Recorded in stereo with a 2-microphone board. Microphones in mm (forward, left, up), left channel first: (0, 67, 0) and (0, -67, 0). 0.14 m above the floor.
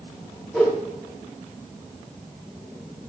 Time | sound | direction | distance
0.5 | a whoosh | 5° right (ahead or behind) | 5.5 m